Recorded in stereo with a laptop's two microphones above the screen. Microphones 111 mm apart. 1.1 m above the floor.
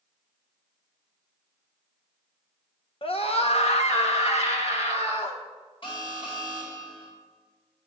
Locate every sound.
3.0 s a scream: 50° left (ahead or behind), 1.1 m; by 5.4 s 65° left (ahead or behind), 3 m
5.8 s an alarm: 45° left (ahead or behind), 3.5 m